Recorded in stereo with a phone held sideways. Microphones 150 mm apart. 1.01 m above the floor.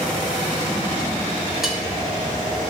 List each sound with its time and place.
1.6 s cutlery clinking: 5° right (ahead or behind), 1.6 m